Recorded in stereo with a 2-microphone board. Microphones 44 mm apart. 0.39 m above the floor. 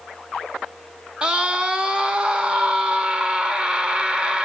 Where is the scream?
20° right (ahead or behind), 0.8 m.